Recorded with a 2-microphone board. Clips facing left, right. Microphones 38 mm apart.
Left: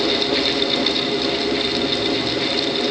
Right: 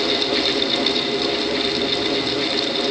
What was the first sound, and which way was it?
Only background noise.